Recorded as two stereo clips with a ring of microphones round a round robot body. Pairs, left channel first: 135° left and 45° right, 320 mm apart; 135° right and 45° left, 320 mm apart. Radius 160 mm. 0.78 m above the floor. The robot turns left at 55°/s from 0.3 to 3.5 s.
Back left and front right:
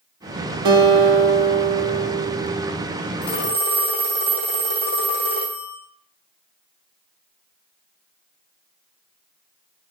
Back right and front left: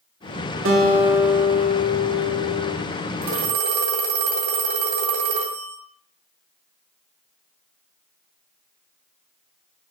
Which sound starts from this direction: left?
A phone ringing, at 3.2 s.